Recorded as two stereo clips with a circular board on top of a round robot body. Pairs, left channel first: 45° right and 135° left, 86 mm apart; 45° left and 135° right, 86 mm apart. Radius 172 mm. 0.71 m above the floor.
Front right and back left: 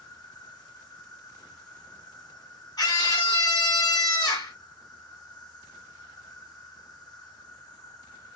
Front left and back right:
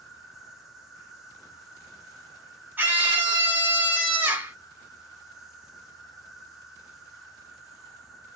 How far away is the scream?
About 2 m.